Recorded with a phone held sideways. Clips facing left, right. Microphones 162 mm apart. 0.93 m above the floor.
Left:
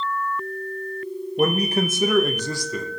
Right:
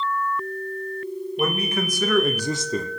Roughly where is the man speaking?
Left.